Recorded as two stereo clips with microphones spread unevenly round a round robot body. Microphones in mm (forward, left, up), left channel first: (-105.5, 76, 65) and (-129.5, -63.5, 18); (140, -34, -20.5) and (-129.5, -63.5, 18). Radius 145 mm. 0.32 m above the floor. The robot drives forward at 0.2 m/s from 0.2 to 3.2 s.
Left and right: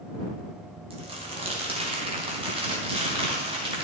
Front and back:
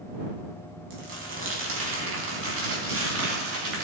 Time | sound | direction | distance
0.9 | crumpling | 130° right | 3.5 m